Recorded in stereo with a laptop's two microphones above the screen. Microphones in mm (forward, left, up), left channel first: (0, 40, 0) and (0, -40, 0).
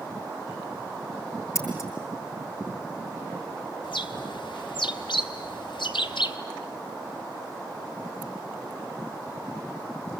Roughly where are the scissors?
Left.